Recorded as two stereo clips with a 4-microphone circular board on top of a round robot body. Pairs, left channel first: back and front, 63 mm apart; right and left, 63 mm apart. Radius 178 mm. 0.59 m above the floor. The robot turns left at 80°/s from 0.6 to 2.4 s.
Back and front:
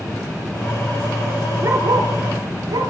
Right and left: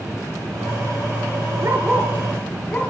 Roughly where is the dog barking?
Ahead left.